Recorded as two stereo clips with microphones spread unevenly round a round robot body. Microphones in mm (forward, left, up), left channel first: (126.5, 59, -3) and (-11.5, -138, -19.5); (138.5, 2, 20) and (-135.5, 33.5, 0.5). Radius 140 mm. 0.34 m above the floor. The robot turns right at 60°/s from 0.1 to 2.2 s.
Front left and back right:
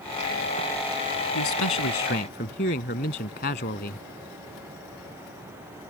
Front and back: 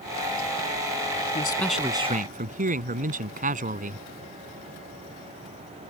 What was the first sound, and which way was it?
A man speaking, 60° left.